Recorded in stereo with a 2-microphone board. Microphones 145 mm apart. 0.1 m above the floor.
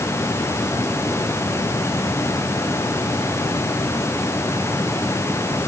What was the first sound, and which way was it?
Only background noise.